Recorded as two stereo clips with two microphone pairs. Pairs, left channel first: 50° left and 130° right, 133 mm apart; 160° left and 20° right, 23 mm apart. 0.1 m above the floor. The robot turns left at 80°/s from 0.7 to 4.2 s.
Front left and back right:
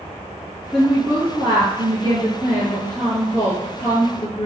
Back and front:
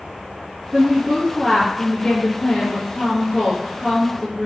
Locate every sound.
0.7 s a woman speaking: 50° right, 2.0 m; by 4.5 s 30° left, 2.0 m